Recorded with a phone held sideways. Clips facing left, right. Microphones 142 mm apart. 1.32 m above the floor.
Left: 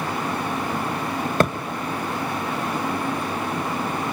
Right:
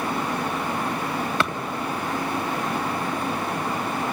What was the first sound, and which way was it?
A thud, 45° left (ahead or behind).